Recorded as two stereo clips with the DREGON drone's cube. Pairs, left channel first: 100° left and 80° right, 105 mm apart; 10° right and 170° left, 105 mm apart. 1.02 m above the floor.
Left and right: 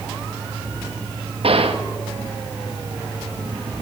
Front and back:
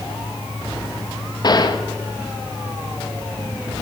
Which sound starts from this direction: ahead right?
A gunshot, at 1.4 s.